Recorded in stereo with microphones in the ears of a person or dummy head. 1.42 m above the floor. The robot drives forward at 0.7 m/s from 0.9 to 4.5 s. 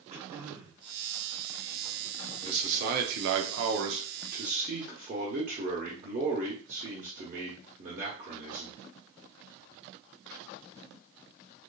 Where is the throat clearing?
30° right (ahead or behind), 0.7 m.